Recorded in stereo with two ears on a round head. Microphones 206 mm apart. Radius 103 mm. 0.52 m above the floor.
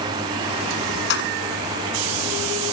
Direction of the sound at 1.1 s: 50° left (ahead or behind).